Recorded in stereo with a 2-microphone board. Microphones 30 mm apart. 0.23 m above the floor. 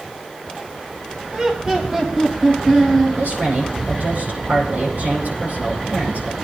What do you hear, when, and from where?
1.3 s laughter: 35° right (ahead or behind), 1.3 m; by 3.2 s 15° right (ahead or behind), 3 m
3.2 s a woman speaking: 80° right, 7.5 m